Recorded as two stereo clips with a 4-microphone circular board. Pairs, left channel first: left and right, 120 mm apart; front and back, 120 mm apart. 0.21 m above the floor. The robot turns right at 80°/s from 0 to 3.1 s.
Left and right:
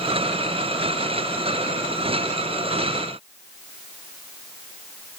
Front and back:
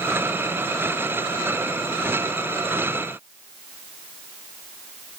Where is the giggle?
No giggle in this recording.